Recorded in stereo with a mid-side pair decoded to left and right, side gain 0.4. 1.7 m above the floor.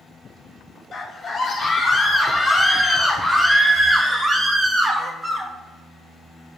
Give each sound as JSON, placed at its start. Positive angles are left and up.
{"t": 0.9, "sound": "a scream", "azimuth_deg": 55, "distance_m": 1.9}